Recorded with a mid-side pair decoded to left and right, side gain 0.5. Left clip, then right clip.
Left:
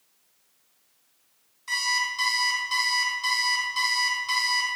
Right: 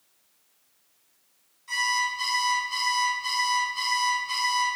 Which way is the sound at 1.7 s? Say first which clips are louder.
Even; 60° left.